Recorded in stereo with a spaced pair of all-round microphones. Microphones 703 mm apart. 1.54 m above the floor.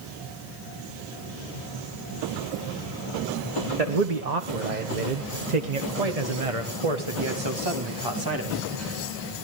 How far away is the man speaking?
About 1.4 m.